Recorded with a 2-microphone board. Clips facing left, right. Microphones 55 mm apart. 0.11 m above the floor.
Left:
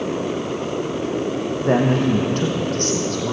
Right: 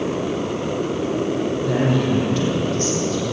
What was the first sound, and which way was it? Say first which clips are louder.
A man speaking: left 4 dB; 40° left (ahead or behind).